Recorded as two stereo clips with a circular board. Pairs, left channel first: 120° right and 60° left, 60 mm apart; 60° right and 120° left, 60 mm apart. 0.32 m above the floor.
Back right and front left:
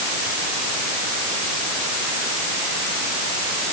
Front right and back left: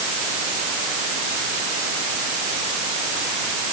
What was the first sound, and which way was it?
Only background noise.